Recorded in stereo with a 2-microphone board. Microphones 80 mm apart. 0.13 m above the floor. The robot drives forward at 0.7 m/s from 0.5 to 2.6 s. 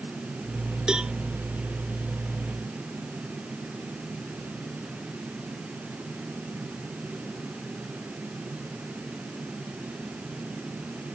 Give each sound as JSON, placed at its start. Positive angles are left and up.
{"t": 0.9, "sound": "a cowbell", "side_deg": -10}